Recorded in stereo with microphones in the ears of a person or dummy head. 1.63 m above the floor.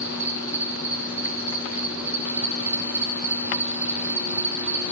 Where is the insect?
5° right (ahead or behind), 4 m.